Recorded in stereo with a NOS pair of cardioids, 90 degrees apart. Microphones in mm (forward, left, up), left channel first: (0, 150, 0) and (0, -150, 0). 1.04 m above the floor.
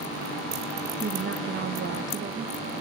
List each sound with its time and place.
1.0 s a woman speaking: 40° right, 0.8 m